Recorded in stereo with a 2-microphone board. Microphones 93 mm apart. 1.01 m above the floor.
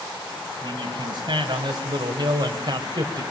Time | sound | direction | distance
0.6 | a man speaking | 50° right (ahead or behind) | 6 m